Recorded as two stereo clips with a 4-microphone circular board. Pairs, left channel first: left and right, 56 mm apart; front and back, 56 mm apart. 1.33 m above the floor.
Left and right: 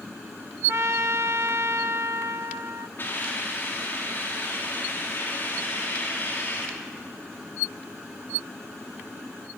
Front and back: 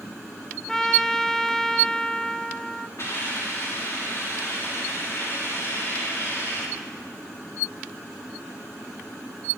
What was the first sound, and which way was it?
A trumpet, 80° right.